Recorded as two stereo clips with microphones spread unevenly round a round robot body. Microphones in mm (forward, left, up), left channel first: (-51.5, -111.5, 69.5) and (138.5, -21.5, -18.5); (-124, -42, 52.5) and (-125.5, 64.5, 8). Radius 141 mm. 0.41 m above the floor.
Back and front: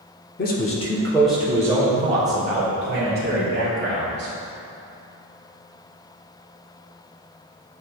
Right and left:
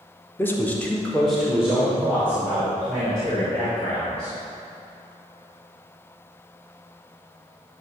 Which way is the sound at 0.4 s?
170° left.